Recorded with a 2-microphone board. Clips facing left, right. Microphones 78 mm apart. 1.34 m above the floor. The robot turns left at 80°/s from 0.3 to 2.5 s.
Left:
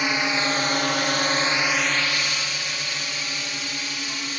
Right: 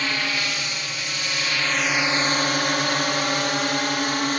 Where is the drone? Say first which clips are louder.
Left 3 dB; 20° left (ahead or behind); by 4.4 s 60° right (ahead or behind).